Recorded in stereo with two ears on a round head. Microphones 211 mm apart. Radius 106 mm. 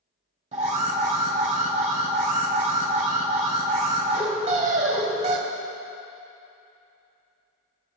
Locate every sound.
0.5 s an alarm: 30° right (ahead or behind), 1.4 m